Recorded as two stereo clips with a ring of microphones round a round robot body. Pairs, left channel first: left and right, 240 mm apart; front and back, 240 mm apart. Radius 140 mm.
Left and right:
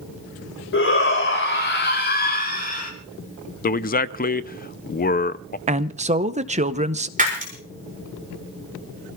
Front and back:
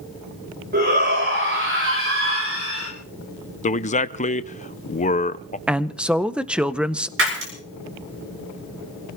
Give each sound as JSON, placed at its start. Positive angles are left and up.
{"t": 0.7, "sound": "a shout", "azimuth_deg": 125, "distance_m": 4.0}
{"t": 3.6, "sound": "a man speaking", "azimuth_deg": 50, "distance_m": 0.6}
{"t": 5.7, "sound": "a man speaking", "azimuth_deg": -100, "distance_m": 0.6}
{"t": 7.2, "sound": "breaking glass", "azimuth_deg": -145, "distance_m": 6.0}